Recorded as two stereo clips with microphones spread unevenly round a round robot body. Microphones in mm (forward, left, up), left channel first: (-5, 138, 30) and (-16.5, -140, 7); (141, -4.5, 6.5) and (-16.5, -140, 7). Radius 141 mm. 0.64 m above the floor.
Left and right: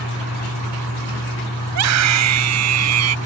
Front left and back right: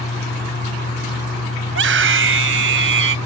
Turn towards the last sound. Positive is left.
turn(degrees=-120)